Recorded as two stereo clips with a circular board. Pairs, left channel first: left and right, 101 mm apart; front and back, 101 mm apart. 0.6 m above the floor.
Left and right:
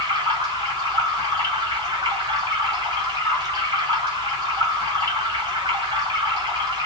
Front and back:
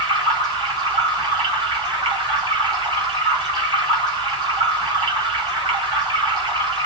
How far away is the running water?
About 2 m.